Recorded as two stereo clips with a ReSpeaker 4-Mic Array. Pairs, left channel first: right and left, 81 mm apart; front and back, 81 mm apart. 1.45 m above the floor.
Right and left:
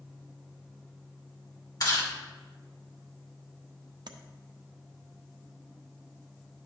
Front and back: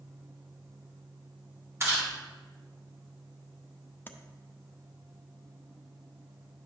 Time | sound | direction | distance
1.8 | chewing | 125° right | 2 m
4.1 | tapping | 65° left | 0.6 m